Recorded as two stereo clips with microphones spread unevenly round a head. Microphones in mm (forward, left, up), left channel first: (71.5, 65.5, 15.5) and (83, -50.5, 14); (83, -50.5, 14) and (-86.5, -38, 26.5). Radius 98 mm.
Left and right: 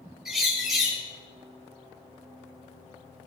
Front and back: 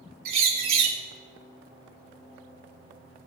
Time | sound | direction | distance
0.2 | a bird | 170° right | 2 m